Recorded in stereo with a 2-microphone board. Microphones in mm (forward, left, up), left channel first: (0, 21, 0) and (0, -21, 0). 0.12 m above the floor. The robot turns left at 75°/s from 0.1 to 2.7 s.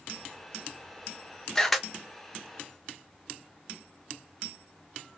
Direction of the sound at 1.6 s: 10° left (ahead or behind).